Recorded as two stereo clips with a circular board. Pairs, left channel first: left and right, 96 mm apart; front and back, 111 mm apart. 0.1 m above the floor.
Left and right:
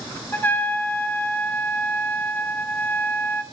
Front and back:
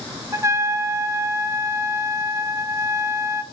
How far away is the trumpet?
About 0.8 m.